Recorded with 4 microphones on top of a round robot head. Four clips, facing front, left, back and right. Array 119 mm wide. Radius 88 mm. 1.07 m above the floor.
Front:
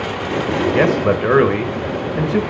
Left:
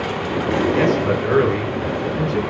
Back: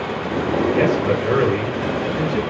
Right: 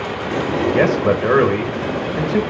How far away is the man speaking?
About 1.0 m.